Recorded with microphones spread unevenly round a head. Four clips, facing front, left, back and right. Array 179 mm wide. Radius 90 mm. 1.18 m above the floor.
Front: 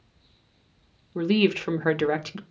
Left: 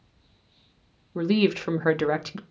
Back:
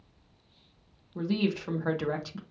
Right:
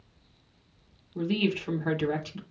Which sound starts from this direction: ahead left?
A woman speaking, at 1.1 s.